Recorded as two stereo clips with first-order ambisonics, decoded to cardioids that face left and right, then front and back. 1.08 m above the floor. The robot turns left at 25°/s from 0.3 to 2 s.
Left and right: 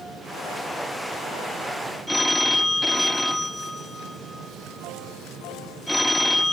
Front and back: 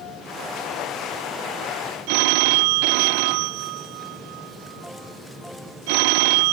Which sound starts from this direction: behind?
A phone ringing, at 2.1 s.